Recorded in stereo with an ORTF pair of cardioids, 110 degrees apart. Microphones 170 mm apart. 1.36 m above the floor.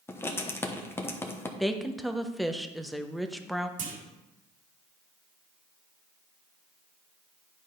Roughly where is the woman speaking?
Ahead.